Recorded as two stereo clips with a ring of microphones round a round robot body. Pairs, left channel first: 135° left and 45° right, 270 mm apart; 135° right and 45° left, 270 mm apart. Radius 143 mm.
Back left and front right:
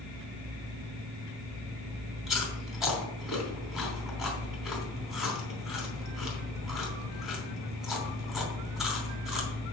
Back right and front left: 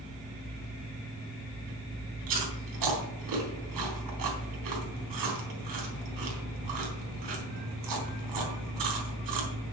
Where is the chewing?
45° left, 3 m.